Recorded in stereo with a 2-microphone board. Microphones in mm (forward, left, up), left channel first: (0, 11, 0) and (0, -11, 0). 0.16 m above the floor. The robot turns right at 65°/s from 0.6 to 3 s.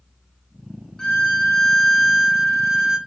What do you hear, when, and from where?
1.0 s a violin: 120° left, 0.6 m; by 3.0 s 110° right, 0.6 m